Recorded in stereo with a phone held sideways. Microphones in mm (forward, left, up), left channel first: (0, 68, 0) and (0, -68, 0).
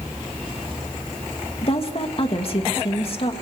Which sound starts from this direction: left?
A woman speaking, at 1.6 s.